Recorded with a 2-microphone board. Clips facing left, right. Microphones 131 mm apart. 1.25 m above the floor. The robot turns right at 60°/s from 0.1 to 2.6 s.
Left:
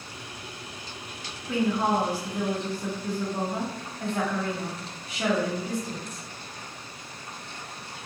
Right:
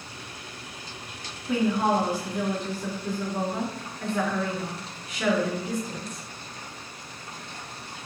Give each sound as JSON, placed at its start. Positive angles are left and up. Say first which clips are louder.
{"t": 1.5, "sound": "a woman speaking", "louder": "right 1 dB", "azimuth_deg": -35, "distance_m": 1.7}